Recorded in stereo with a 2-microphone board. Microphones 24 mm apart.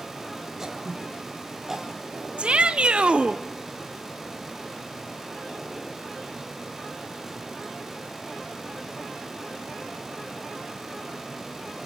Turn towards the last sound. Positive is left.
turn(degrees=-55)  # may be behind; listen again after turning